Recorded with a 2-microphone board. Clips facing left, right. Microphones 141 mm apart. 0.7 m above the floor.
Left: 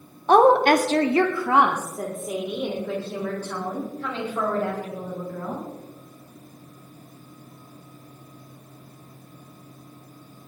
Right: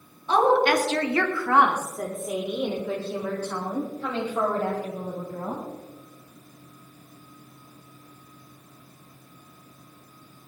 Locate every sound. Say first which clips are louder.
0.3 s a woman speaking: left 5 dB; 60° left (ahead or behind), 1.0 m; by 5.6 s 20° right (ahead or behind), 4.5 m